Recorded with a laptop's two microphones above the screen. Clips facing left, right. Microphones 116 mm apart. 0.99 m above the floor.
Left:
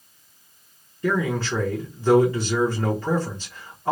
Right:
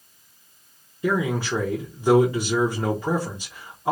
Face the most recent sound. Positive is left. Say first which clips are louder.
# even
turn(degrees=-15)  # may be behind; listen again after turning